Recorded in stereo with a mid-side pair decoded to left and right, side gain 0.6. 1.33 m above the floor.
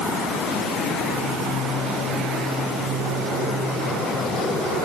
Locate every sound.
Only background noise.